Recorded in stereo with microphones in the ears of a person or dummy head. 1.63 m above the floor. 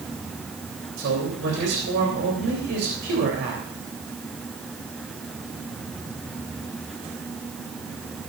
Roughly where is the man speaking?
Right.